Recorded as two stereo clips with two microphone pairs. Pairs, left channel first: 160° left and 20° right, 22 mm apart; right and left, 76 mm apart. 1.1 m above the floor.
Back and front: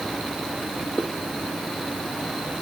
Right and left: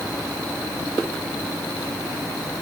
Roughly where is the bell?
No bell in this recording.